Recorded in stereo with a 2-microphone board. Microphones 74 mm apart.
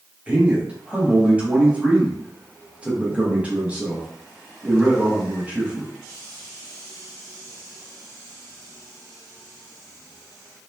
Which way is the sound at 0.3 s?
15° right (ahead or behind).